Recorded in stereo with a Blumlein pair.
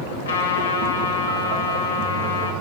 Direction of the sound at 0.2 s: 60° left.